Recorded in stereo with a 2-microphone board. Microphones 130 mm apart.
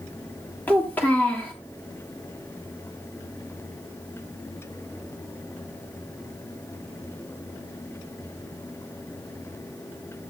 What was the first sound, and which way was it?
A child speaking, 15° left (ahead or behind).